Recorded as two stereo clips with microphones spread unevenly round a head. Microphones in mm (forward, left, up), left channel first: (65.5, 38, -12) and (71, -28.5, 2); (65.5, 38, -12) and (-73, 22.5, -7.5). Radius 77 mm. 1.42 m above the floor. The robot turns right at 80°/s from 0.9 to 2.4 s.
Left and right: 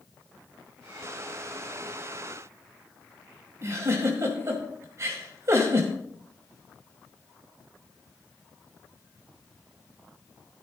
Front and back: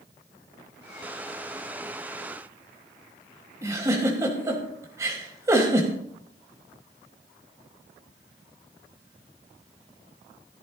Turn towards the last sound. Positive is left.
turn(degrees=-110)